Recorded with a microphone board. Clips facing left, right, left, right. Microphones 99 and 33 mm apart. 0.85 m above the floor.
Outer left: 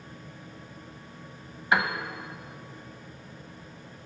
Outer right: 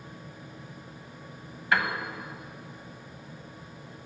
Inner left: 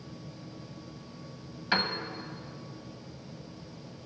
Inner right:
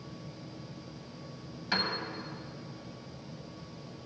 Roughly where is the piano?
Centre.